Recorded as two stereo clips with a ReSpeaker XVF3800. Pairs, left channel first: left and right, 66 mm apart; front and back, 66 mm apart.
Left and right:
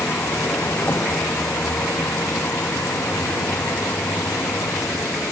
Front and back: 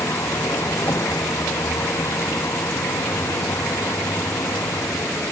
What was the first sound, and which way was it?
A vehicle, 35° left.